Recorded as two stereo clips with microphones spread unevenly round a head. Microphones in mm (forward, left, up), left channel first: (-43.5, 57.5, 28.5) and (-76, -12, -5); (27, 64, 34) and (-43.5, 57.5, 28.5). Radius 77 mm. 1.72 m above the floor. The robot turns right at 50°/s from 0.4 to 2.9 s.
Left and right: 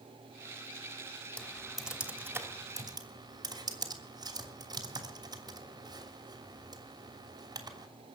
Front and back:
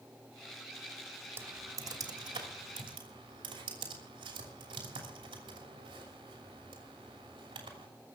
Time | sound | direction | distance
1.4 | typing on a keyboard | 125° left | 3 m